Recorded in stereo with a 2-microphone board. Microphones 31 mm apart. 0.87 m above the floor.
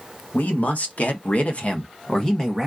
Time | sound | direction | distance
0.3 | a man speaking | 55° left (ahead or behind) | 1.3 m